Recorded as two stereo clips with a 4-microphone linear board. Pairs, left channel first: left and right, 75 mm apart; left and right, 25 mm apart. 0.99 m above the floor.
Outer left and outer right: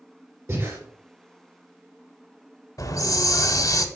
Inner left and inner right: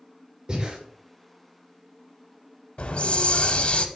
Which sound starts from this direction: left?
A hiss, at 2.8 s.